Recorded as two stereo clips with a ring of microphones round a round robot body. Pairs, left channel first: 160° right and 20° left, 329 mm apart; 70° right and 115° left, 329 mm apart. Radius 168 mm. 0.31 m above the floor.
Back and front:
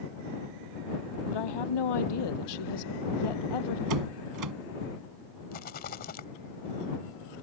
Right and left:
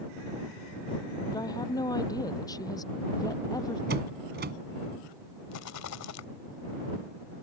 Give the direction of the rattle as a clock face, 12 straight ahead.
3 o'clock.